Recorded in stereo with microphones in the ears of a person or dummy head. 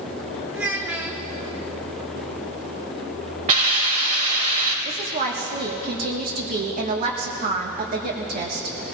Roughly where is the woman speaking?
Right.